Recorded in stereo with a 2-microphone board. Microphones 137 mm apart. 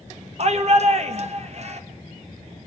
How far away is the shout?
About 1.8 m.